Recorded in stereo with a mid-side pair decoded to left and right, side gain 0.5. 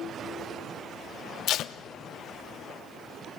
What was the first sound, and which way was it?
Tape being pulled, 65° left.